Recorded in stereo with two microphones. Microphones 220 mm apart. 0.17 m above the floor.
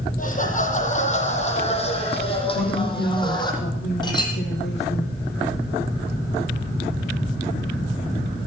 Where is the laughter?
40° left (ahead or behind), 7 m; by 3.5 s 20° left (ahead or behind), 8 m.